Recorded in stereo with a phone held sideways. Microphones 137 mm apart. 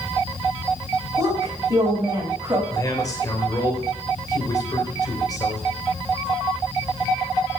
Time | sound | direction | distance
1.2 | a woman speaking | 25° right (ahead or behind) | 4 m
2.7 | a man speaking | 30° left (ahead or behind) | 3.5 m